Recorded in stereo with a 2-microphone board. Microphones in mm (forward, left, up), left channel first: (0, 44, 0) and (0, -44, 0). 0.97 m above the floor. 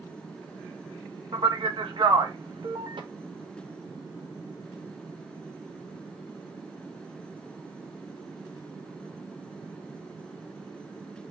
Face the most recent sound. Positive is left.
turn(degrees=-65)  # may be behind; listen again after turning